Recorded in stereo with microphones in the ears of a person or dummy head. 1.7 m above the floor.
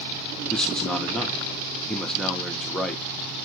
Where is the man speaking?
5° left (ahead or behind), 0.9 m.